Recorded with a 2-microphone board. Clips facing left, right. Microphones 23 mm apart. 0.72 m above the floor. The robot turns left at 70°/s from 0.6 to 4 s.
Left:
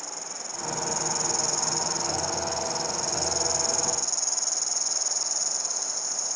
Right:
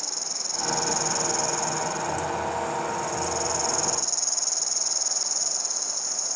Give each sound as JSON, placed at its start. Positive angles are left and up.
{"t": 0.0, "sound": "an insect", "azimuth_deg": -130}